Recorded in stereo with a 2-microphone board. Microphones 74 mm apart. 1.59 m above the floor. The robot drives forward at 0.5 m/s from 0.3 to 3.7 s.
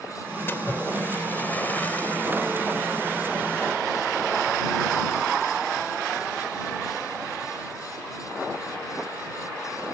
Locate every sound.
0.5 s a splash: 30° left (ahead or behind); by 2.2 s 20° left (ahead or behind)